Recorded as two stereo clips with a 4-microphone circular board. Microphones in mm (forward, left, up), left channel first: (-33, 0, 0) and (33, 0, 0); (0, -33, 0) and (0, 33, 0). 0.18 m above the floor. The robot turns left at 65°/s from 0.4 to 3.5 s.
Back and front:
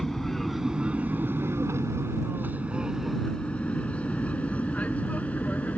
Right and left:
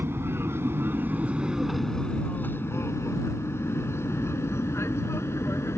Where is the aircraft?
95° left; by 5.8 s 120° right.